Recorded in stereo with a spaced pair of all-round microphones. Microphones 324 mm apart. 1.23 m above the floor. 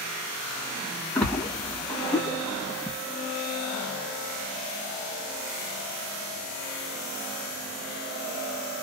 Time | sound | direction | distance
1.1 | a splash | centre (ahead or behind) | 1.6 m